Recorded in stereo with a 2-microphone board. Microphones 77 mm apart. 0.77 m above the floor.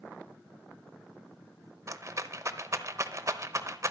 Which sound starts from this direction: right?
A rattle, at 1.9 s.